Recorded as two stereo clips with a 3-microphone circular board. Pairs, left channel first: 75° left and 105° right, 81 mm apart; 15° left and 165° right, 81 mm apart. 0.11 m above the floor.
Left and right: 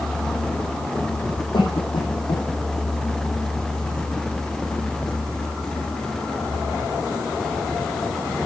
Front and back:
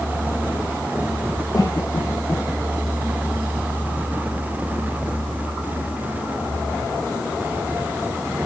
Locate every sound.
1.5 s a cough: 60° left, 4 m